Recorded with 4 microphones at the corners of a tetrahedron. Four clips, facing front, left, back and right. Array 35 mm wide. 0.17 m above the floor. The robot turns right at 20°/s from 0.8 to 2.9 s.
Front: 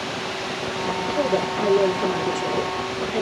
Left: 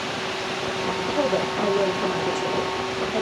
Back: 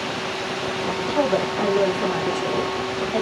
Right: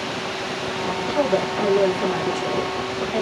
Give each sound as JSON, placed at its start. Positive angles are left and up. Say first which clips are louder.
{"t": 1.1, "sound": "a woman speaking", "louder": "right 3 dB, back 2 dB", "azimuth_deg": -155, "distance_m": 1.3}